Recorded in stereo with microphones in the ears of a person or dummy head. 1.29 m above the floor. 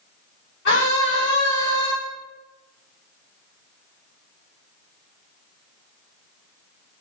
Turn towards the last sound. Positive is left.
turn(degrees=70)  # may be behind; listen again after turning